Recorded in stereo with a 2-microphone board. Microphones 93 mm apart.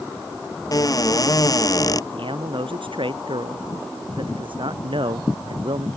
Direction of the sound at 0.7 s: 45° left (ahead or behind).